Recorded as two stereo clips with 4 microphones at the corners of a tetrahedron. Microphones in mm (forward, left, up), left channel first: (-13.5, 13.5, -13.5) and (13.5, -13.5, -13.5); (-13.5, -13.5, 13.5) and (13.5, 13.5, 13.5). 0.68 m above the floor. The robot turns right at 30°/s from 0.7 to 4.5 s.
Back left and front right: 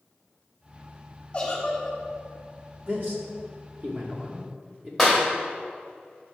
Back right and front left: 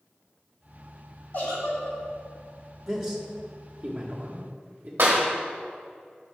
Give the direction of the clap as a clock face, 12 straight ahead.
11 o'clock.